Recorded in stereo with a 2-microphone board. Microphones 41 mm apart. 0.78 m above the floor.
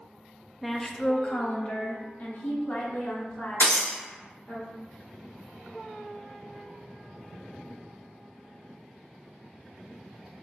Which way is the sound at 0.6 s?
Centre (ahead or behind).